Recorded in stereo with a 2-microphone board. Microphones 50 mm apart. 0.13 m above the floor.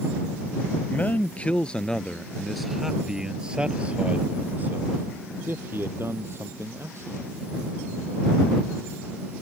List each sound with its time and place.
0.9 s a man speaking: 35° left (ahead or behind); by 7.3 s 55° right (ahead or behind)